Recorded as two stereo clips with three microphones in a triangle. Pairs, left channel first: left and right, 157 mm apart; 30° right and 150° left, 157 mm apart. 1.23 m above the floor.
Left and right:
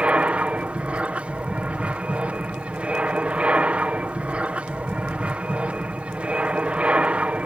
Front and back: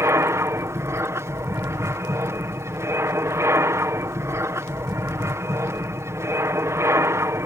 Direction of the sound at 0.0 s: 165° right.